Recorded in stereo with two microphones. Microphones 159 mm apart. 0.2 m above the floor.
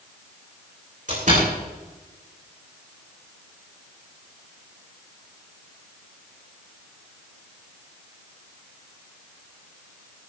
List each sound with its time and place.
1.1 s a door slam: 50° right (ahead or behind), 8.5 m